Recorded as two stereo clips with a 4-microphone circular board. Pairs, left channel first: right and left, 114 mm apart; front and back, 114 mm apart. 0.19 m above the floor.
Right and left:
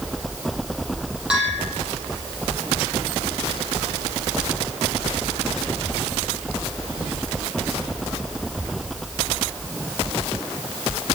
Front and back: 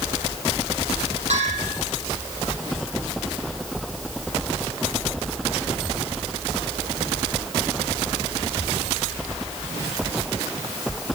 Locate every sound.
1.3 s a bell: 170° left, 7.5 m